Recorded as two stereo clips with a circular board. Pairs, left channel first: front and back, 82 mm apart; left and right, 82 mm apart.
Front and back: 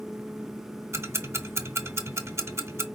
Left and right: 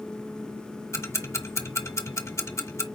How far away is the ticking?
About 1.6 m.